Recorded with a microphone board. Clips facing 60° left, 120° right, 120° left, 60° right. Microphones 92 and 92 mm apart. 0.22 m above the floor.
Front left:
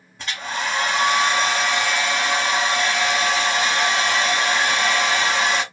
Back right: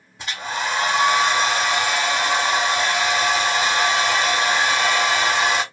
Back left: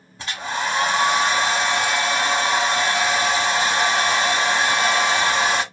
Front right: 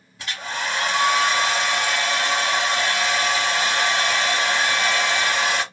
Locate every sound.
0.2 s a hair dryer: 165° left, 1.1 m